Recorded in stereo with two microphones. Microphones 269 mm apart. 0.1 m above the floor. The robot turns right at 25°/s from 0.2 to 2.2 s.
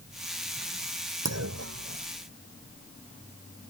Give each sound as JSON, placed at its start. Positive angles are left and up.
{"t": 1.2, "sound": "a clunk", "side_deg": -70}